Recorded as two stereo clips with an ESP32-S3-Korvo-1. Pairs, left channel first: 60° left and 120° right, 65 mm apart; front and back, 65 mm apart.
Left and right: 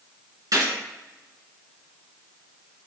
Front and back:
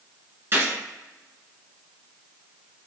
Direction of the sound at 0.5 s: 130° right.